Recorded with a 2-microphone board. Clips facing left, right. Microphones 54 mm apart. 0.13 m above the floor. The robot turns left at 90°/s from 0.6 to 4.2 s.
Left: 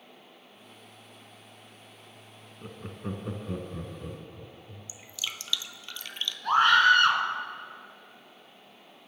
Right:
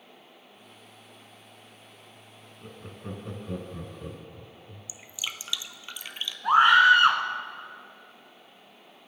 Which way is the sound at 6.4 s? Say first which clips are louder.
Right 3 dB; 20° right (ahead or behind).